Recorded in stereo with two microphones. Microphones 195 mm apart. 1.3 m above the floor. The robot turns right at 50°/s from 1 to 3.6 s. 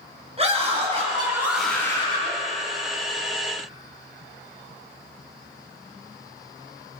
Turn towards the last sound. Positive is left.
turn(degrees=100)